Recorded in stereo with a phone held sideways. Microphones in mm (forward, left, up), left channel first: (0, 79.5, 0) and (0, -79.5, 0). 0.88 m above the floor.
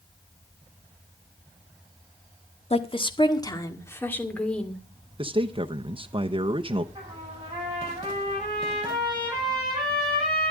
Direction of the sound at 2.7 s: 40° left (ahead or behind).